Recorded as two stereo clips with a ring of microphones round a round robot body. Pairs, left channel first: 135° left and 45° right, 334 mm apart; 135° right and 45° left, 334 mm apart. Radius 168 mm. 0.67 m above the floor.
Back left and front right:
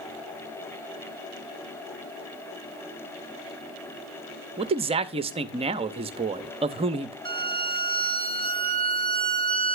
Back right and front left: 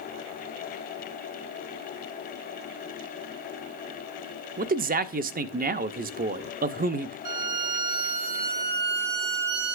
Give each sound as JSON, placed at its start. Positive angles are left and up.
{"t": 4.6, "sound": "a man speaking", "azimuth_deg": 10, "distance_m": 0.5}
{"t": 7.2, "sound": "a violin", "azimuth_deg": 60, "distance_m": 1.5}